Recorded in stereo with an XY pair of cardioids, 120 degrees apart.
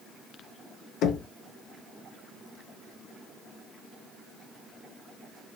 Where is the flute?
I don't hear a flute.